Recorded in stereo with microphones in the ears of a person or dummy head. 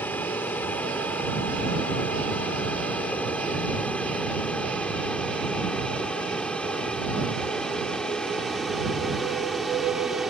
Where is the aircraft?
15° left (ahead or behind); by 10.3 s 5° left (ahead or behind).